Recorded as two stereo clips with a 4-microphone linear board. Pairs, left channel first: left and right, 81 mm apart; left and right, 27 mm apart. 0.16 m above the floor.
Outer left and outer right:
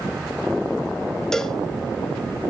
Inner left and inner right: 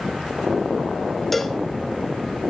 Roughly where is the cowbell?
Centre.